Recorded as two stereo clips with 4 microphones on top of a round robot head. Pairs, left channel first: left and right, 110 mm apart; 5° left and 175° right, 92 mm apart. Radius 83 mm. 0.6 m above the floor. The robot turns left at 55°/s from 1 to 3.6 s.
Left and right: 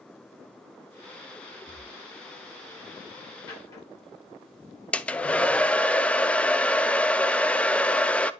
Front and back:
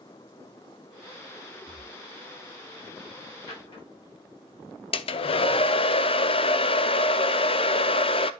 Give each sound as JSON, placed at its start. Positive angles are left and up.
{"t": 1.7, "sound": "breathing", "azimuth_deg": 165, "distance_m": 4.0}
{"t": 3.5, "sound": "a drawer", "azimuth_deg": 40, "distance_m": 6.5}
{"t": 4.9, "sound": "a hair dryer", "azimuth_deg": 10, "distance_m": 0.6}